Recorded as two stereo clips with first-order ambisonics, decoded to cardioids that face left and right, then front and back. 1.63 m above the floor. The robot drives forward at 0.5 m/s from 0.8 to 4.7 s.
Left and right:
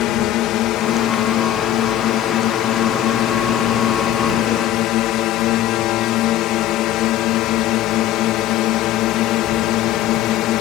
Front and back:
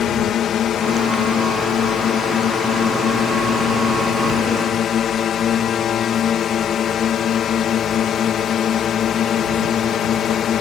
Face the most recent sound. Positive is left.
turn(degrees=55)